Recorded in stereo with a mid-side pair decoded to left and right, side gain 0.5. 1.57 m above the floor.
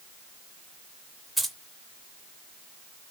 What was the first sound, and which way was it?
Keys jangling, 5° right.